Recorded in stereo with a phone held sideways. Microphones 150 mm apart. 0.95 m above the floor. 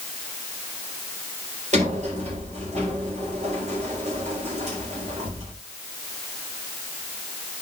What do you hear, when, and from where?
1.7 s a sliding door: 50° right (ahead or behind), 3.5 m